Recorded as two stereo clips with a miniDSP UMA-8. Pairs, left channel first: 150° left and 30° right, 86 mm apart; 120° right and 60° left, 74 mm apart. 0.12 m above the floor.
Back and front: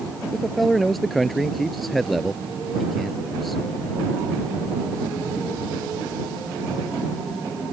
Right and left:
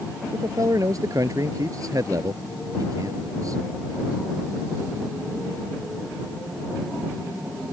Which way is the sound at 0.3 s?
60° left.